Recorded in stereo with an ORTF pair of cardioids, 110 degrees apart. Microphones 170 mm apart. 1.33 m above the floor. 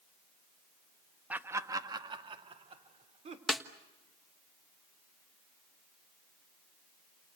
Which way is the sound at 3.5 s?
Straight ahead.